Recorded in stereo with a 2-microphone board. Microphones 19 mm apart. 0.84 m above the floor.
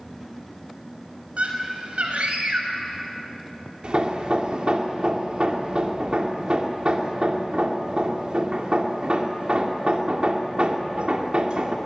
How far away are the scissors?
I don't hear scissors.